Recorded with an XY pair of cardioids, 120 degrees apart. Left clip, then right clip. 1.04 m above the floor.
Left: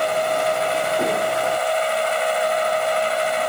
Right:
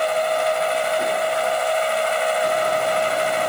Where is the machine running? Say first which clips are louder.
Even; 5° right.